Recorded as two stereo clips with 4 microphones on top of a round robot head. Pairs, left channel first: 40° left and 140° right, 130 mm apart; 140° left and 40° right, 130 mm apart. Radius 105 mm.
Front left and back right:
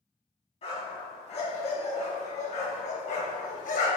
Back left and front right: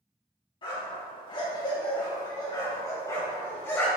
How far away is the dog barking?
About 4 m.